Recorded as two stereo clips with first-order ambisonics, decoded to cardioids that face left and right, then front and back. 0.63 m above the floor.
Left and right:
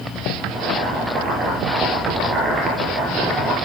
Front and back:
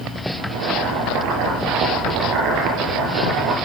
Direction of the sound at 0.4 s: 165° right.